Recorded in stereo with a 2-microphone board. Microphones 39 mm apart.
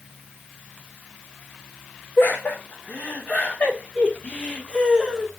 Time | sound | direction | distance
2.2 | laughter | 55° left (ahead or behind) | 4 m